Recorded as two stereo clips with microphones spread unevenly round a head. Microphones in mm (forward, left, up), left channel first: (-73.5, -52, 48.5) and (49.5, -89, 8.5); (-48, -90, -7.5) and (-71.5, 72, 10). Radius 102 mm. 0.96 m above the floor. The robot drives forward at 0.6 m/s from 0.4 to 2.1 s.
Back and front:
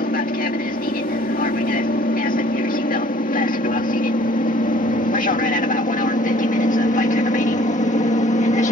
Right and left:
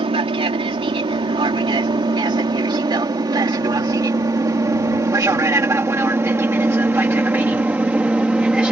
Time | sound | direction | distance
0.0 | an aircraft | 150° left | ?